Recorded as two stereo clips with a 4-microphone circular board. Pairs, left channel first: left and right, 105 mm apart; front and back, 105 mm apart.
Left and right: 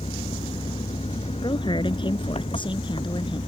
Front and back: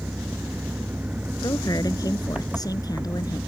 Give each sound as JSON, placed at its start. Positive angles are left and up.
{"t": 0.0, "sound": "an engine running", "azimuth_deg": 105}
{"t": 1.4, "sound": "a woman speaking", "azimuth_deg": 50}